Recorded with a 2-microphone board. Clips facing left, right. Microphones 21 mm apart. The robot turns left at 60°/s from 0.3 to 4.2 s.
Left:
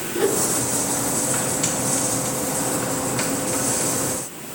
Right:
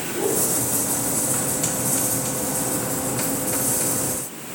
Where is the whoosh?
75° left (ahead or behind), 7 m; by 0.4 s 65° left (ahead or behind), 7 m.